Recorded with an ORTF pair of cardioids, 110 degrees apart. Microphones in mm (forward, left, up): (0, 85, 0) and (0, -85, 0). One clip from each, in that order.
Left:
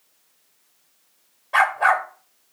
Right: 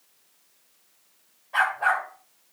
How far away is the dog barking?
About 2.5 m.